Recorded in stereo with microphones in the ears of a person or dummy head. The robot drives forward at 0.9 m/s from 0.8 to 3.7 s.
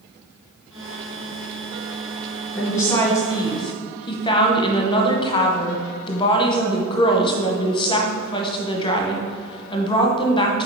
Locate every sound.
2.5 s a woman speaking: 15° left (ahead or behind), 2 m; by 10.7 s 25° left (ahead or behind), 1.2 m